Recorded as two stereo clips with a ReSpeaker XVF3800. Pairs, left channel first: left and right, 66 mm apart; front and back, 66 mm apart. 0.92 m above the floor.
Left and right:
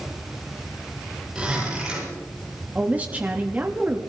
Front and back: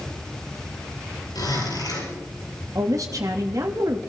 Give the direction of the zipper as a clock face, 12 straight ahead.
12 o'clock.